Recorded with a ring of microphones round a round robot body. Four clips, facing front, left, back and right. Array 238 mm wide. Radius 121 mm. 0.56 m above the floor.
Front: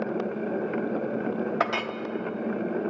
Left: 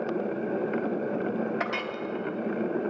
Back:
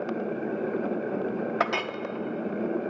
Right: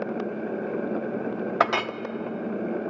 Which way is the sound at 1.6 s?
95° right.